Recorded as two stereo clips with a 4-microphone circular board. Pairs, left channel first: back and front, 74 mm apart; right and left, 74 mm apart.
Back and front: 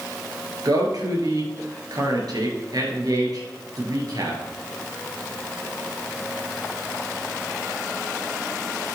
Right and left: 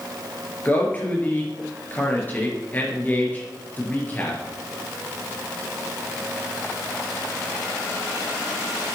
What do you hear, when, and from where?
0.7 s a man speaking: 25° right, 4 m